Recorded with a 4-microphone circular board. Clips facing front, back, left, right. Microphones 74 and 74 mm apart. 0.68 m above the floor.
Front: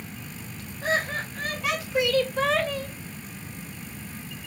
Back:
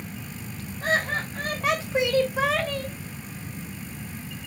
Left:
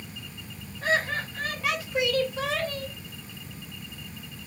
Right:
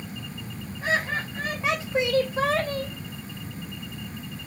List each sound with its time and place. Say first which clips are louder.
0.8 s laughter: back 1 dB, even; 160° right, 1.8 m; by 2.9 s 65° right, 1.1 m